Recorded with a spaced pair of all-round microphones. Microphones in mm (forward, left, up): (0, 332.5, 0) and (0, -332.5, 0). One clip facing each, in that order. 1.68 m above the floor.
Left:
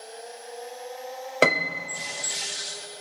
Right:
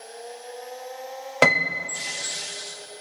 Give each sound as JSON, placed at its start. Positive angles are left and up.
{"t": 1.4, "sound": "a piano", "side_deg": -30, "distance_m": 0.5}